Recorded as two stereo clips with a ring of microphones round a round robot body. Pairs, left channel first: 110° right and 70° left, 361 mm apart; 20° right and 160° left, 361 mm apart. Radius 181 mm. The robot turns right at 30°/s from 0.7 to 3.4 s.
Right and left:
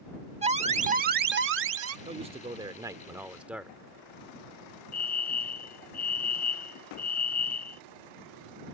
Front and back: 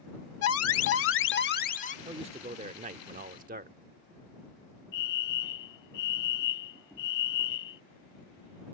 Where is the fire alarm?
50° right.